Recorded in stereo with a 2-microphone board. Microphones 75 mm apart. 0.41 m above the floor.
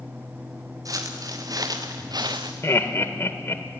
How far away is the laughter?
About 1.1 m.